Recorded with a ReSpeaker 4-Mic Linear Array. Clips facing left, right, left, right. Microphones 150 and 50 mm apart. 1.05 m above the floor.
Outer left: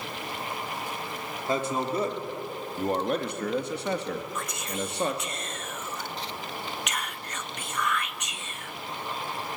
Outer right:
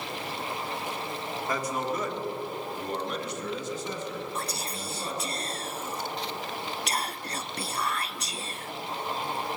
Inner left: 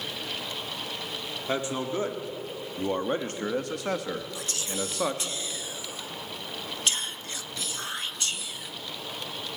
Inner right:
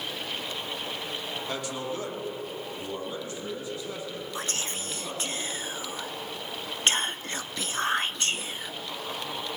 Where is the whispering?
35° right (ahead or behind), 0.6 m.